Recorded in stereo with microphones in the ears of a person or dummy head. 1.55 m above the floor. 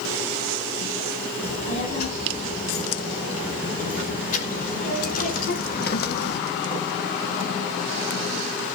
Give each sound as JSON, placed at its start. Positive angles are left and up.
{"t": 1.4, "sound": "a child speaking", "side_deg": 45, "distance_m": 9.0}